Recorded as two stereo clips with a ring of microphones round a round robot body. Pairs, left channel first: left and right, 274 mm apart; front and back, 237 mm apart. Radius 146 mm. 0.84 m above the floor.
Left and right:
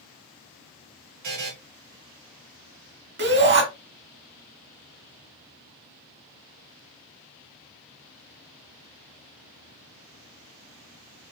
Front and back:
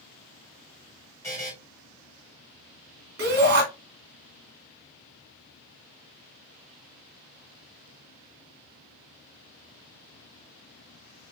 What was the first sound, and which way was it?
A buzzer, 80° right.